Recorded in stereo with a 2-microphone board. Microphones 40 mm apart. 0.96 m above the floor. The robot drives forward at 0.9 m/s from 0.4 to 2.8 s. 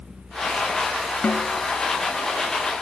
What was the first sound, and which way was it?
A snare drum, 40° left (ahead or behind).